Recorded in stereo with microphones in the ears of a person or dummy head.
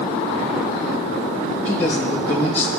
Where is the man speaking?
10° left (ahead or behind), 1.8 m.